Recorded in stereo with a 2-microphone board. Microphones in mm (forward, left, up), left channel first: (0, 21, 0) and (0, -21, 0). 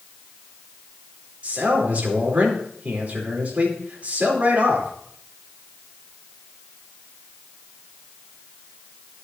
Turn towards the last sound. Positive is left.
turn(degrees=-35)  # may be behind; listen again after turning